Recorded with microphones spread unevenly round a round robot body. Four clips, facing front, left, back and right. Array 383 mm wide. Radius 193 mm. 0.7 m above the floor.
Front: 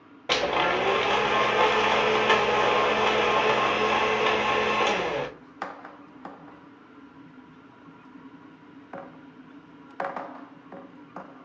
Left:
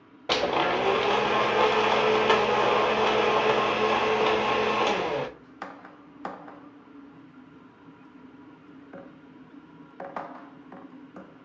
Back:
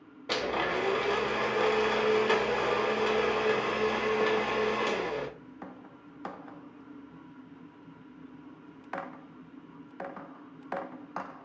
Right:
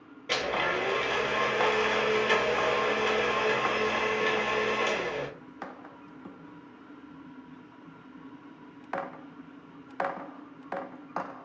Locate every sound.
0.3 s a blender: 35° left, 0.6 m